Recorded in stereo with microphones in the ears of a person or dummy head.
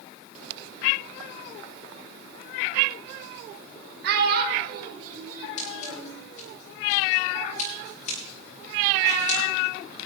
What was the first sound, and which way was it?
A child speaking, 60° right (ahead or behind).